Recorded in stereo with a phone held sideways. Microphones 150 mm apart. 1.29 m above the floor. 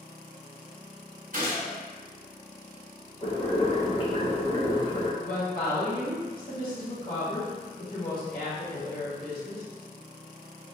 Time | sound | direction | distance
1.3 | a gunshot | 60° right (ahead or behind) | 1.3 m
3.2 | boiling | 35° left (ahead or behind) | 0.9 m
5.2 | a woman speaking | 75° left (ahead or behind) | 1.6 m